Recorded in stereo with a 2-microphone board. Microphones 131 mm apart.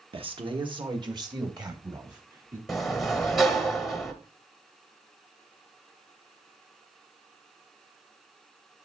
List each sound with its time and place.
0.1 s a man speaking: 45° right (ahead or behind), 1.4 m; by 2.6 s 25° right (ahead or behind), 3 m
2.7 s a sliding door: centre (ahead or behind), 1.2 m